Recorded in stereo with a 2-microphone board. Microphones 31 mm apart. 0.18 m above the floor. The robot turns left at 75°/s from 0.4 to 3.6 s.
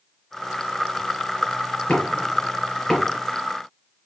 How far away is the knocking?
About 3 m.